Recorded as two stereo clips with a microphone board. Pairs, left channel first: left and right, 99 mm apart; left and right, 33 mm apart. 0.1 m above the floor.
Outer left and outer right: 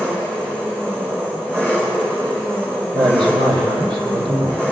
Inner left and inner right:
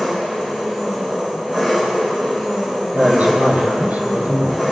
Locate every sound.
0.0 s an engine running: 25° right (ahead or behind), 4.5 m
2.9 s a woman speaking: 55° right (ahead or behind), 2.5 m